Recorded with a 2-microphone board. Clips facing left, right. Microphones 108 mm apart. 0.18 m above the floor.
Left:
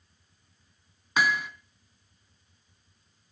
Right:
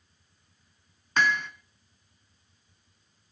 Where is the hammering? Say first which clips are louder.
Even; 10° left (ahead or behind), 1.2 m.